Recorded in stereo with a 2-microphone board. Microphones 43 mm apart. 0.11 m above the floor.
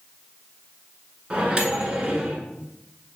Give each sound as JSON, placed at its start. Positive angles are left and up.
{"t": 1.3, "sound": "a microwave", "side_deg": -25, "distance_m": 1.1}